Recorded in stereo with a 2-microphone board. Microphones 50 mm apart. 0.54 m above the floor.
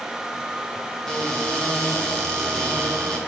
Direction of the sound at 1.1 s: 15° left (ahead or behind).